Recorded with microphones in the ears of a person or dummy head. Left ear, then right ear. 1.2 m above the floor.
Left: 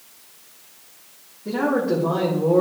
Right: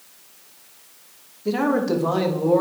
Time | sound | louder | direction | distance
1.4 | a man speaking | even | 75° right (ahead or behind) | 1.7 m